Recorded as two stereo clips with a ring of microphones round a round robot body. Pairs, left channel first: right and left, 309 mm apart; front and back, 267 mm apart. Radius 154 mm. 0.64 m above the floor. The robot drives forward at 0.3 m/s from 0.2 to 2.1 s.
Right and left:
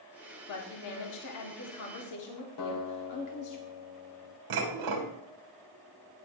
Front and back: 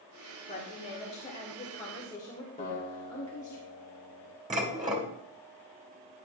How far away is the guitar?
About 2.5 m.